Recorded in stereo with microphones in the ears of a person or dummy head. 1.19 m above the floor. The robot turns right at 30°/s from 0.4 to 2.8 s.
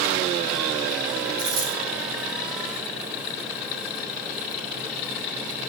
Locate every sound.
1.4 s a dropped coin: 40° right (ahead or behind), 2.5 m; by 1.8 s 55° right (ahead or behind), 2.5 m